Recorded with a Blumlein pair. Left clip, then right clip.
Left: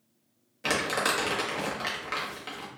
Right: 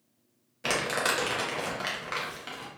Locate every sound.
0.6 s crumpling: straight ahead, 0.9 m